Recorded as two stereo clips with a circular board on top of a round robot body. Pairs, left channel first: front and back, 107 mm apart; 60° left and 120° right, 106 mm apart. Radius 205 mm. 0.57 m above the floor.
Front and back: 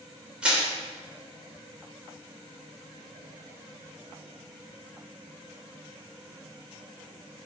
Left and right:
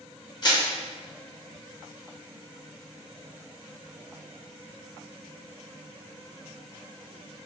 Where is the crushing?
100° left, 2.5 m.